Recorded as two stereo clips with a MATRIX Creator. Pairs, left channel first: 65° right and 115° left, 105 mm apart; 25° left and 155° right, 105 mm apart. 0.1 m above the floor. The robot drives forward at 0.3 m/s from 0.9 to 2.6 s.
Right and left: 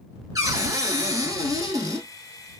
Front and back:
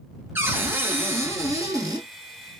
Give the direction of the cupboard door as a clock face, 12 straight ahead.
7 o'clock.